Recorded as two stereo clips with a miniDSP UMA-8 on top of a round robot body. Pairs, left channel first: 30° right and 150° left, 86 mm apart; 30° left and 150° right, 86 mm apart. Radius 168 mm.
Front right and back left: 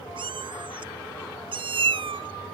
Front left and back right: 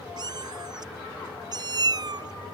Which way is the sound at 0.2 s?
170° left.